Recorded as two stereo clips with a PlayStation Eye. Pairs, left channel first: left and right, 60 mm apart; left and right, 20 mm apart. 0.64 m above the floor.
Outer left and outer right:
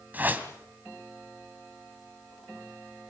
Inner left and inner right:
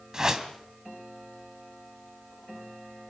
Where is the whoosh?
30° right (ahead or behind), 2 m.